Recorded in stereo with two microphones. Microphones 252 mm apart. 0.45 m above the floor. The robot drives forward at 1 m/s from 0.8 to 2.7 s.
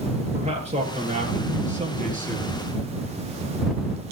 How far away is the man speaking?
About 9 m.